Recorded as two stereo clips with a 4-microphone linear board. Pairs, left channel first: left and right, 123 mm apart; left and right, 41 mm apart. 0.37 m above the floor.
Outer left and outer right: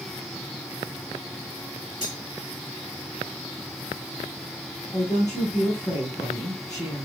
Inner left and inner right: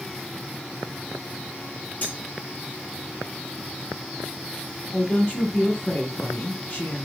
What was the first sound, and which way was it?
Cutlery clinking, 35° left (ahead or behind).